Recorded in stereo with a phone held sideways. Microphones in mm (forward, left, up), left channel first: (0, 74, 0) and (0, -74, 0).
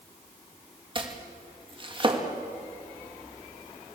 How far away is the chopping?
About 2 m.